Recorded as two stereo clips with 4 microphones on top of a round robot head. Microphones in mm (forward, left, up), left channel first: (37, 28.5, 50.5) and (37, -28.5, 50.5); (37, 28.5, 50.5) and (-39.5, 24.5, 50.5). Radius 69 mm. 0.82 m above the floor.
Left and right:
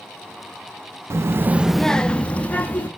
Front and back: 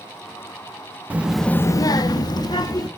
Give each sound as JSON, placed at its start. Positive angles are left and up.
{"t": 1.1, "sound": "a child speaking", "azimuth_deg": -110, "distance_m": 0.7}